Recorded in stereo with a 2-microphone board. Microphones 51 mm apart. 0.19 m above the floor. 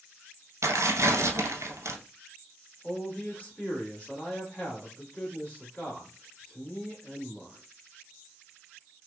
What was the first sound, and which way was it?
Tearing paper, 75° right (ahead or behind).